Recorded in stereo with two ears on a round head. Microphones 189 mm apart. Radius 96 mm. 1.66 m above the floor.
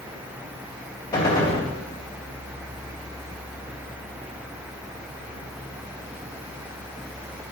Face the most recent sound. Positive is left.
turn(degrees=25)  # may be behind; listen again after turning